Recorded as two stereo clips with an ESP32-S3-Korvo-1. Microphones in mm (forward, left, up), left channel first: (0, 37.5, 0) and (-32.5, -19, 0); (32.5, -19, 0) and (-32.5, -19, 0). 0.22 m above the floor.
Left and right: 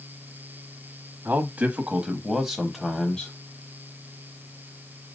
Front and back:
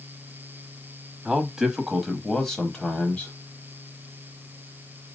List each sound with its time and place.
1.2 s a man speaking: 115° right, 1.3 m; by 3.3 s 25° left, 1.2 m